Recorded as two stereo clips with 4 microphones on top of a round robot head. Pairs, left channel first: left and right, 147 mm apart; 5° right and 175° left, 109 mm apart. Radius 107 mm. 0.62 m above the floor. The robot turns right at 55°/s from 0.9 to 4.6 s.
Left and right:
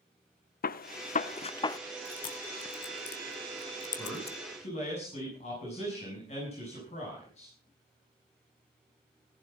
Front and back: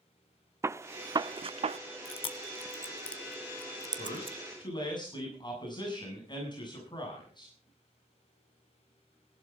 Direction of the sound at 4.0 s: 5° left.